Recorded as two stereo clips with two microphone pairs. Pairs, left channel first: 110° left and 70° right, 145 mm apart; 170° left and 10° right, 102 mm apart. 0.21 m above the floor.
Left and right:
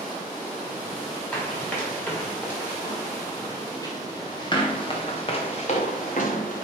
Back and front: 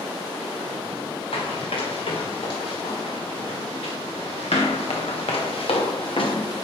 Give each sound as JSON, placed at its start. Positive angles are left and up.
{"t": 1.3, "sound": "running footsteps", "azimuth_deg": -175, "distance_m": 5.0}